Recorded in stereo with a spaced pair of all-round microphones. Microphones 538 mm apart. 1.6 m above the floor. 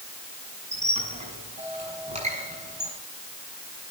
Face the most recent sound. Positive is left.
turn(degrees=-10)  # may be behind; listen again after turning